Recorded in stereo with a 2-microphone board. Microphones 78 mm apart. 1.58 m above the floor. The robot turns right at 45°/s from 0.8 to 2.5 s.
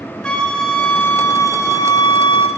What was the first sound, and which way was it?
A flute, 15° left.